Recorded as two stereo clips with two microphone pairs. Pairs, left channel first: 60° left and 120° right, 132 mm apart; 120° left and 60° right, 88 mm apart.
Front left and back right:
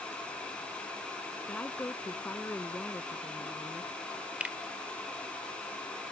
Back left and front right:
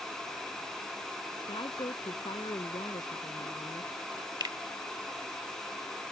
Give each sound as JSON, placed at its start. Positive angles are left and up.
{"t": 1.5, "sound": "a woman speaking", "azimuth_deg": 135}
{"t": 4.4, "sound": "a finger snap", "azimuth_deg": -45}